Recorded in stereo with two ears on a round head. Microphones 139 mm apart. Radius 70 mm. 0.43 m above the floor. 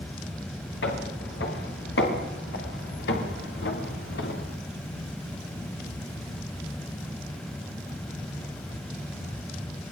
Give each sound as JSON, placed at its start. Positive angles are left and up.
{"t": 0.8, "sound": "footsteps", "side_deg": 85, "distance_m": 9.0}